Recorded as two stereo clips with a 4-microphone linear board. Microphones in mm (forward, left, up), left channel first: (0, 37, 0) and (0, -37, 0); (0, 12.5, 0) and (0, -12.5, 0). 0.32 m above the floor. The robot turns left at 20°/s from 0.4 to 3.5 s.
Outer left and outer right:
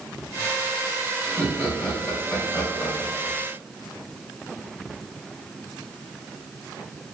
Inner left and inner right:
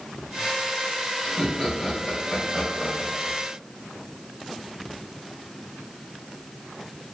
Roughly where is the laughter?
Behind.